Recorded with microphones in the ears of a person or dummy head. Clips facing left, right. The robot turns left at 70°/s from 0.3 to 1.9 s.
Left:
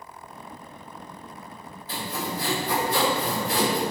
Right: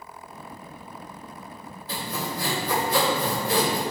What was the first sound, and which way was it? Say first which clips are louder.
Sawing: even; 70° right (ahead or behind).